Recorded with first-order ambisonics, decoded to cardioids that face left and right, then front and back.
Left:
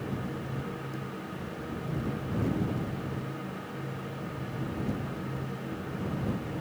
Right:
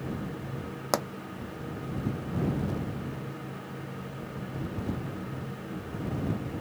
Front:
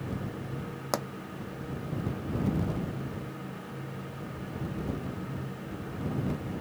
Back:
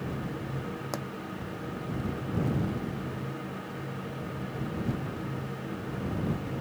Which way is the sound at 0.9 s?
70° right.